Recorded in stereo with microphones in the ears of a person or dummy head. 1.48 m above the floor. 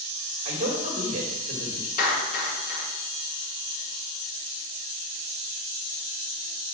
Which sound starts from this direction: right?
A man speaking, at 0.5 s.